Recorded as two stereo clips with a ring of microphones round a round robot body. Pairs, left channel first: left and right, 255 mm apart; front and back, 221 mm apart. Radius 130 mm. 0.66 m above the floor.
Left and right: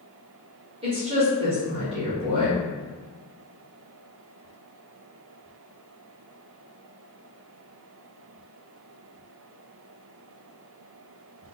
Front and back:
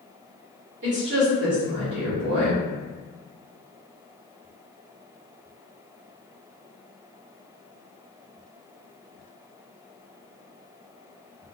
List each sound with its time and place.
0.8 s a woman speaking: 155° right, 1.8 m